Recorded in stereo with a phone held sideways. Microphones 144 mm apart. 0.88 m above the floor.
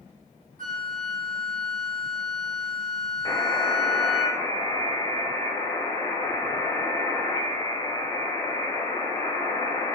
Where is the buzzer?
25° left (ahead or behind), 2.5 m.